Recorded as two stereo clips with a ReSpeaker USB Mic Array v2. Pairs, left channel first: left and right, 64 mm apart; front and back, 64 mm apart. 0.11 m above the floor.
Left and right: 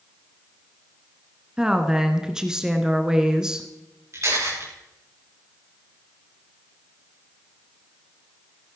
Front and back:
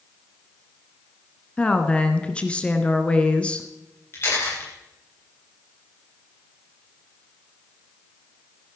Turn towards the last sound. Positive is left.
turn(degrees=-50)